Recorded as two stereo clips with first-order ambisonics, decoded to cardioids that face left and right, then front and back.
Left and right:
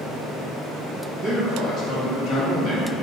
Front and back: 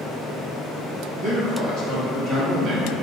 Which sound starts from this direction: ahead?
A man speaking, at 1.2 s.